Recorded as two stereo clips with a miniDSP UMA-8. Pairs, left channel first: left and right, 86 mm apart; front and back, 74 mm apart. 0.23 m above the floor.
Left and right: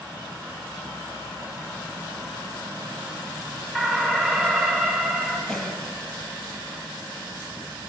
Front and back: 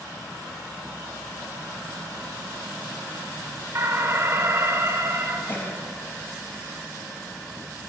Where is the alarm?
170° left, 1.1 m.